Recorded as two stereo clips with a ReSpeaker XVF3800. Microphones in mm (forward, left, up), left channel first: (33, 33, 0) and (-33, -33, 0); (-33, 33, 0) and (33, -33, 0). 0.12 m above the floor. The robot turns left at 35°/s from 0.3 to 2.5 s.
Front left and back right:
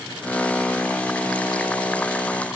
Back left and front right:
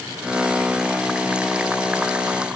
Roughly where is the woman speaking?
I don't hear a woman speaking.